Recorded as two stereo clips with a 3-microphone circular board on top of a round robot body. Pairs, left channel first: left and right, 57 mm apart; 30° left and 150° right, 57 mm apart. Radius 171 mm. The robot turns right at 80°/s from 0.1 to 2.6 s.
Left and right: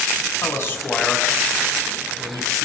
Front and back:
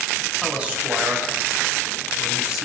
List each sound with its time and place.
0.4 s a man speaking: 120° left, 7 m; by 2.6 s 65° right, 7 m